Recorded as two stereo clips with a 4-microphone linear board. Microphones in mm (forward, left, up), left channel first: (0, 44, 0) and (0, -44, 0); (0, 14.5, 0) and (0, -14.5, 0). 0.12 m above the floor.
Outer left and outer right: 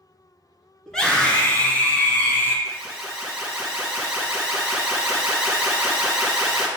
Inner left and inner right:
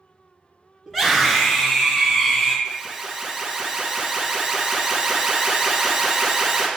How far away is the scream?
About 1.2 m.